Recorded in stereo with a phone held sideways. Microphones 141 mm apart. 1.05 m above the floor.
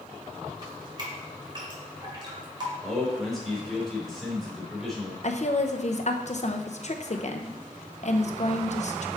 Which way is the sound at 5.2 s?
55° left (ahead or behind).